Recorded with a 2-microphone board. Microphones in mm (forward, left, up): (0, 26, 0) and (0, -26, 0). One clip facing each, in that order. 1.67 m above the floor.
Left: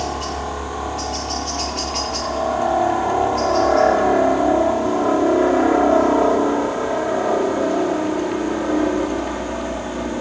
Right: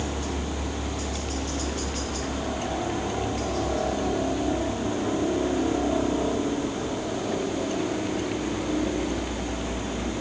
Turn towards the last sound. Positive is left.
turn(degrees=60)  # may be behind; listen again after turning